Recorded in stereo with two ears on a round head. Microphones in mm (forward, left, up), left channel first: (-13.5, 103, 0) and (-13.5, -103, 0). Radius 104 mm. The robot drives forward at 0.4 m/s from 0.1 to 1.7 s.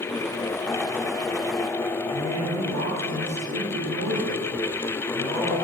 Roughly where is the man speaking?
Right.